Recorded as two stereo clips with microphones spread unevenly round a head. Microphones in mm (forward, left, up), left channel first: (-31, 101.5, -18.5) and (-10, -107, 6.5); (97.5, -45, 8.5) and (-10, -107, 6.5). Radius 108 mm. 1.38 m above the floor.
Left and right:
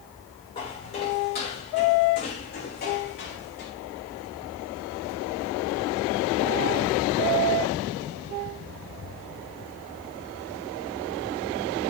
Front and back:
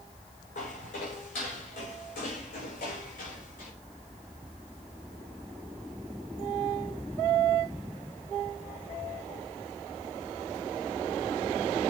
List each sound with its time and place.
0.6 s footsteps: 30° left, 7 m; by 3.7 s 50° left, 6.5 m